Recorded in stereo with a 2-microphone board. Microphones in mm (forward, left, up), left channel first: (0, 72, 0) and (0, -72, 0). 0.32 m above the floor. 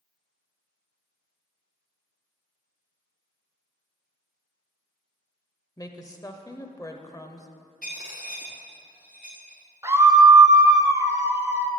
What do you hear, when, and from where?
5.8 s a woman speaking: 25° left (ahead or behind), 0.9 m
7.8 s a dropped coin: 80° left, 4 m
9.8 s a scream: 20° right (ahead or behind), 1.1 m